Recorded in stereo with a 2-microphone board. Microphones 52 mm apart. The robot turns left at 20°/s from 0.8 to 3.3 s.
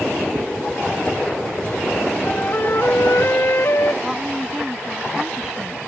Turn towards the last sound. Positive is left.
turn(degrees=-10)  # may be behind; listen again after turning